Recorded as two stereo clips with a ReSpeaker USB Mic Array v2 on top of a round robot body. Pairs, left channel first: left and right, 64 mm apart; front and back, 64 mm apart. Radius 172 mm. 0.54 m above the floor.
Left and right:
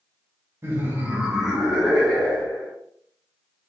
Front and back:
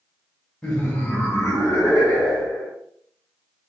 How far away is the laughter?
About 1.0 m.